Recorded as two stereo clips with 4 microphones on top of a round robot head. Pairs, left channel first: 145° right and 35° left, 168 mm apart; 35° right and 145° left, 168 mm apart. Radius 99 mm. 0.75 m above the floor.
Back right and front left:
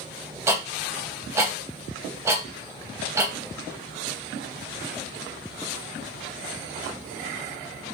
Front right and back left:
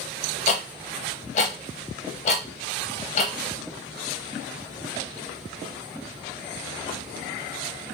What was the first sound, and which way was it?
Ticking, 30° right.